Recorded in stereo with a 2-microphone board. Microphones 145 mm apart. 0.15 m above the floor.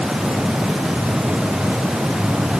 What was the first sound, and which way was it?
Only background noise.